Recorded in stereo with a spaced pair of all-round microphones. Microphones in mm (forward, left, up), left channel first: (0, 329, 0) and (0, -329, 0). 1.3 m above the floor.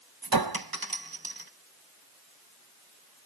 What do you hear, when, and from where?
0.2 s a clink: 35° right (ahead or behind), 0.8 m